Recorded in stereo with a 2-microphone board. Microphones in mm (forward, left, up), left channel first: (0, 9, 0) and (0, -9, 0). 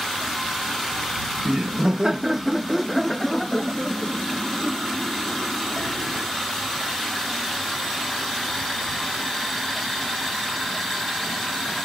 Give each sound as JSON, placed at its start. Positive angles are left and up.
{"t": 1.4, "sound": "laughter", "side_deg": -45}